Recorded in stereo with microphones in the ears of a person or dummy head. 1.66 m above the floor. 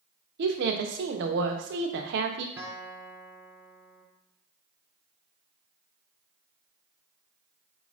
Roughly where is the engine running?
No engine running in this recording.